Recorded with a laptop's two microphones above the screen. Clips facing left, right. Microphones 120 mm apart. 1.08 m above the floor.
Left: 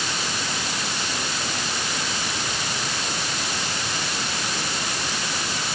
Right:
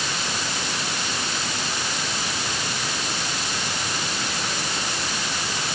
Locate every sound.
Only background noise.